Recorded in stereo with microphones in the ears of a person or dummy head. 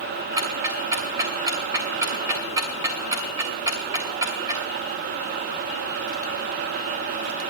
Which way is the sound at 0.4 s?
20° right (ahead or behind).